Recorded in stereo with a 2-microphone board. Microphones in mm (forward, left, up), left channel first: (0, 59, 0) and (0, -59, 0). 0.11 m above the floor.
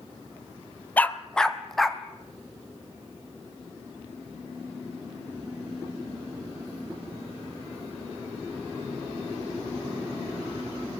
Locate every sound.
1.0 s a dog barking: 15° left (ahead or behind), 0.8 m; by 2.0 s centre (ahead or behind), 1.7 m